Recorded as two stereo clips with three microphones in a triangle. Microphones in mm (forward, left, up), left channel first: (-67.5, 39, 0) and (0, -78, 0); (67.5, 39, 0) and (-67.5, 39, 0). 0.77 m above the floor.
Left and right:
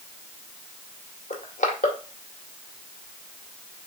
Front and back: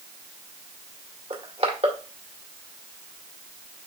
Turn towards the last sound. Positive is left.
turn(degrees=140)